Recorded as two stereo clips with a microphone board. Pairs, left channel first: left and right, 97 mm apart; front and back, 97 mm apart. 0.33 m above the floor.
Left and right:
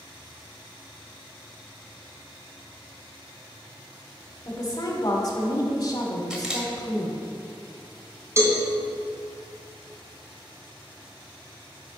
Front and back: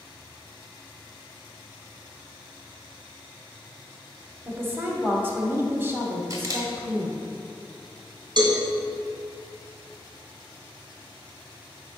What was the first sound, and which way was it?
A woman speaking, 120° left.